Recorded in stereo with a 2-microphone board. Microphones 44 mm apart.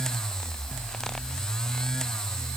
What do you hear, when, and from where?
Only background noise.